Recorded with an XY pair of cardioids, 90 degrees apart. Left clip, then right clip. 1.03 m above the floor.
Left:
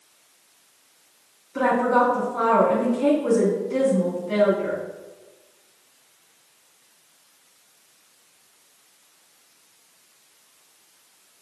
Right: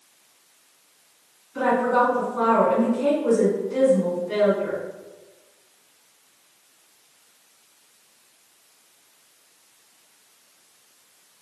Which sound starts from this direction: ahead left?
A woman speaking, at 1.6 s.